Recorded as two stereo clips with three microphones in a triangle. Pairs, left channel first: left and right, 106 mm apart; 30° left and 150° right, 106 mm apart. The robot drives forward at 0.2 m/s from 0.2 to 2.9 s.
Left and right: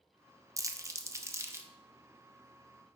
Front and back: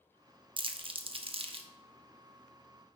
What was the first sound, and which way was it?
Crumpling, 140° right.